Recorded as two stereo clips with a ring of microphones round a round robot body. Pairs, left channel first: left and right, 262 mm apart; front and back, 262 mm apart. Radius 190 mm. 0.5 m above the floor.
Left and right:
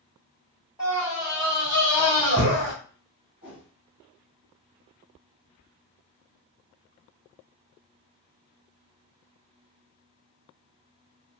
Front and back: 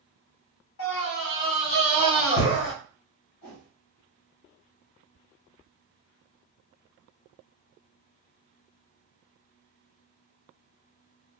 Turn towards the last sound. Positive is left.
turn(degrees=-10)